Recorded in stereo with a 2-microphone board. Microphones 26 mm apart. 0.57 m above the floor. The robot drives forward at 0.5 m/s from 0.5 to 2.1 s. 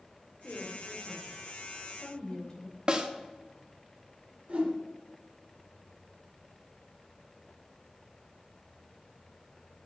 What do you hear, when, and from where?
0.4 s a woman speaking: 35° left (ahead or behind), 1.9 m; by 2.8 s 25° left (ahead or behind), 2.5 m
2.9 s a snare drum: 30° right (ahead or behind), 0.8 m
4.5 s a whoosh: 50° right (ahead or behind), 3 m